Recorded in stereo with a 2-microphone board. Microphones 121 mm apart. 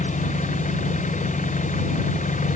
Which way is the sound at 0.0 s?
85° left.